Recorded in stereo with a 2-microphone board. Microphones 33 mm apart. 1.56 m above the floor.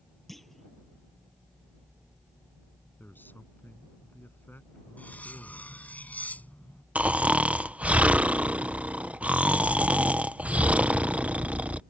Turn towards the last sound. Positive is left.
turn(degrees=-40)  # may be behind; listen again after turning